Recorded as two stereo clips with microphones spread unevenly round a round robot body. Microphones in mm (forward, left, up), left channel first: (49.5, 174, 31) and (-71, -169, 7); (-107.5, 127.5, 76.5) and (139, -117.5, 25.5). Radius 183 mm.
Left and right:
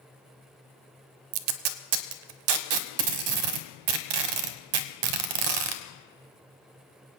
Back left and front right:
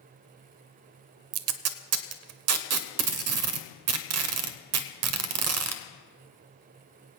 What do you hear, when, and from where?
1.3 s tape being pulled: 90° right, 0.8 m